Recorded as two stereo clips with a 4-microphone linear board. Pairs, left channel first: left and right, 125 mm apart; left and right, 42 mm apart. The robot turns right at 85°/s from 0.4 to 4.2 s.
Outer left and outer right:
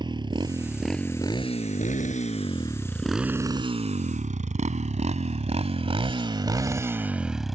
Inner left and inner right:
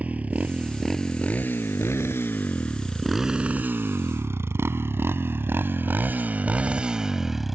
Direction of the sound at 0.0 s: 40° right (ahead or behind).